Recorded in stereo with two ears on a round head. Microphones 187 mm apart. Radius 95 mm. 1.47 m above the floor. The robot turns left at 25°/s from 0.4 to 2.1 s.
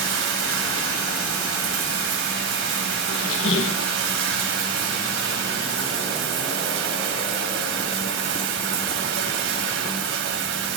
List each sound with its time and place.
0.0 s running water: 65° right, 3.5 m; by 10.8 s 110° right, 3.5 m
3.1 s a squeak: 65° left (ahead or behind), 1.3 m